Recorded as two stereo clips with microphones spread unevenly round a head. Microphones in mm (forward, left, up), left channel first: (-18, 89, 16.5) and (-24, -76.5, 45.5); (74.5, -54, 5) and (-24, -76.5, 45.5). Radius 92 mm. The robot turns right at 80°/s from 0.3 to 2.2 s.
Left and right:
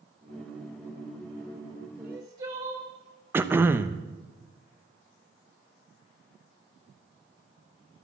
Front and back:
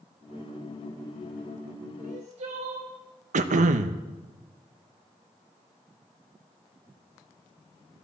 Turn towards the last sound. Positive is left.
turn(degrees=-170)